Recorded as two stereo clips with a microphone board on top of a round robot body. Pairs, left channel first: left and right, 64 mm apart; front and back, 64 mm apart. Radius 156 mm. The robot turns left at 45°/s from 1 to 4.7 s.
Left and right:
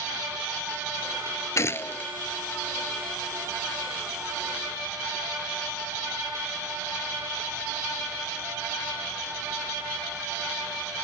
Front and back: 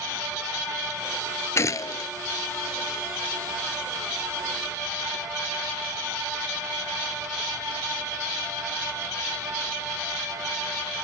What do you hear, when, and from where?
1.6 s a gunshot: 45° left; by 2.1 s 20° left